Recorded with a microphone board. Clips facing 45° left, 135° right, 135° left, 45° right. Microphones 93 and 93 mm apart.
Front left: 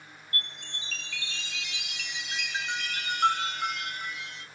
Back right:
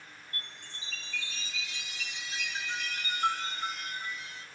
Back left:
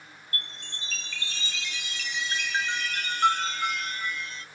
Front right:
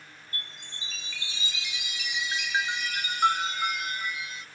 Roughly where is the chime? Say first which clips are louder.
Front left 8 dB, back left 4 dB; ahead left.